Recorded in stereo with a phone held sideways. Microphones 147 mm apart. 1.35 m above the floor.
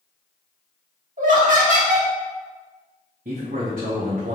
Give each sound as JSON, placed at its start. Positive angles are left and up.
{"t": 1.2, "sound": "laughter", "side_deg": -65, "distance_m": 1.6}
{"t": 3.2, "sound": "a man speaking", "side_deg": -80, "distance_m": 0.8}